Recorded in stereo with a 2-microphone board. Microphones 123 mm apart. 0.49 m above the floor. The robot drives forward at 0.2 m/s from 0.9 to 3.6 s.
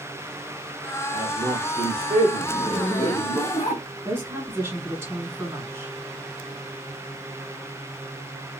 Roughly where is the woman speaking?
Centre.